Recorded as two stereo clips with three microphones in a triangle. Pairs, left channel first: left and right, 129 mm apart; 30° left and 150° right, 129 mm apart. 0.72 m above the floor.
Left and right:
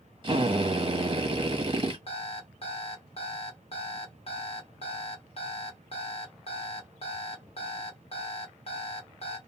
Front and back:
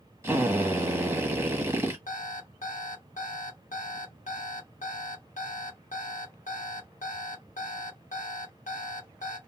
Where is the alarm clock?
50° left, 0.8 m.